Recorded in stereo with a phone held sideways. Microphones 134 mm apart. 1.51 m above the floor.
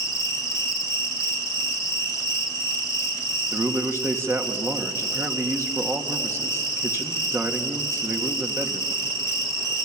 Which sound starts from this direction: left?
An insect, at 0.0 s.